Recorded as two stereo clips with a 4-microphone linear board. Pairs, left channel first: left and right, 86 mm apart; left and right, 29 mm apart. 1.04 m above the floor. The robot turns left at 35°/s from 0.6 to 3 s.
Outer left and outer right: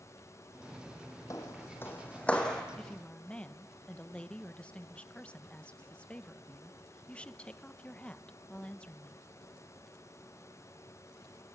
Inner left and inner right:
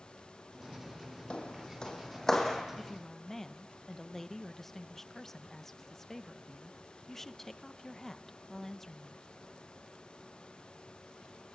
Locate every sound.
1.3 s footsteps: 40° left (ahead or behind), 2.5 m; by 2.6 s 5° left (ahead or behind), 3.5 m
2.8 s a woman speaking: 5° left (ahead or behind), 0.9 m; by 9.3 s 15° left (ahead or behind), 0.9 m